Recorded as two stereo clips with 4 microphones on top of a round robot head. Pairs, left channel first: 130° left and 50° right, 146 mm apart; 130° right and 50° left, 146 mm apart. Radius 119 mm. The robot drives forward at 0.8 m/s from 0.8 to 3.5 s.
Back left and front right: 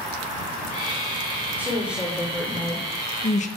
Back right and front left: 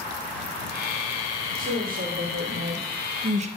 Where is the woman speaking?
25° left, 1.6 m; by 3.5 s 95° left, 0.8 m.